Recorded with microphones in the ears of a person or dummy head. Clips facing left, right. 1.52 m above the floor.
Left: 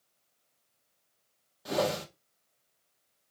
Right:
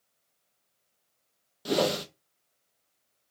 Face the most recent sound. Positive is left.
turn(degrees=-40)  # may be behind; listen again after turning